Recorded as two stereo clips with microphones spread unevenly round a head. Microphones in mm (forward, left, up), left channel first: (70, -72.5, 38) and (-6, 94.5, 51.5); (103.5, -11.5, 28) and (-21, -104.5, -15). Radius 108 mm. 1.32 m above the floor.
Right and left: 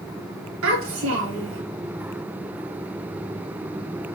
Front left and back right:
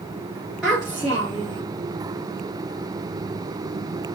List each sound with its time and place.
0.6 s a child speaking: 125° left, 2 m